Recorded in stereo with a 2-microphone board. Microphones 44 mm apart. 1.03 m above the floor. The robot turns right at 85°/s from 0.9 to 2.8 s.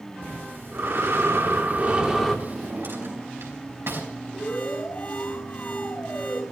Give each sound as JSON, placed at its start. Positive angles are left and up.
{"t": 0.2, "sound": "breathing", "azimuth_deg": -115, "distance_m": 3.0}
{"t": 2.5, "sound": "a drawer", "side_deg": -85, "distance_m": 4.5}
{"t": 4.3, "sound": "an alarm", "side_deg": 40, "distance_m": 7.0}